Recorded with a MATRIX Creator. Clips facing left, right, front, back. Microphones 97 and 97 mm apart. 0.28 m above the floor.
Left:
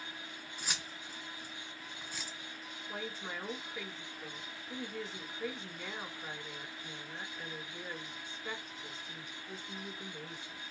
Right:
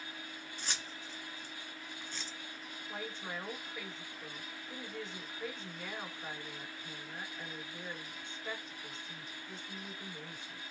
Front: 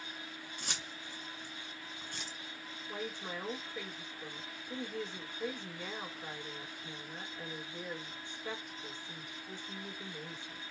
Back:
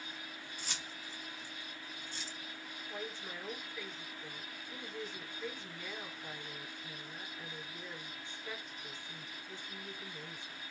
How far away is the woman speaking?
About 3.5 m.